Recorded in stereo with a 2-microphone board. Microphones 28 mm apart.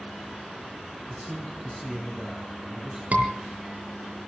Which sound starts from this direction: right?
A scream, at 3.1 s.